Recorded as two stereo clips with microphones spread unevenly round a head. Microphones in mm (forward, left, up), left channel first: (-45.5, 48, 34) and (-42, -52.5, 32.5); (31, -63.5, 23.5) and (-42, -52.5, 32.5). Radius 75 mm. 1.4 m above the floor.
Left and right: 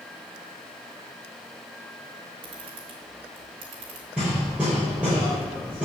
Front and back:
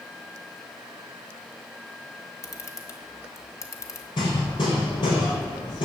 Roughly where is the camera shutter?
Ahead right.